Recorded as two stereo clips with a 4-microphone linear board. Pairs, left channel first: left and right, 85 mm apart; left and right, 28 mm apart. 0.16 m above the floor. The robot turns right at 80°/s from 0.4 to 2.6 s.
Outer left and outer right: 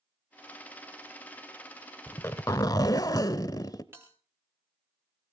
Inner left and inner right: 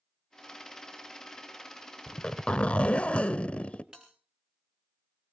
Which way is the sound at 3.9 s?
30° right (ahead or behind).